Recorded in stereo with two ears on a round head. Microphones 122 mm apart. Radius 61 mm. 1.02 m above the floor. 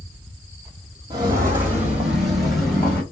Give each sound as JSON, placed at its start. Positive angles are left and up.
{"t": 1.1, "sound": "footsteps", "side_deg": -30, "distance_m": 1.3}